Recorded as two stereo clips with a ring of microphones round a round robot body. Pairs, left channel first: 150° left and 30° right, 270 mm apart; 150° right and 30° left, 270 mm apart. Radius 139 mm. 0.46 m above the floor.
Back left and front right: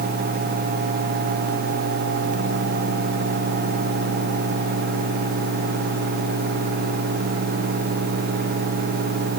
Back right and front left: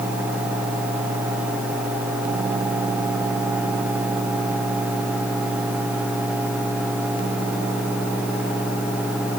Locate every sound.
Only background noise.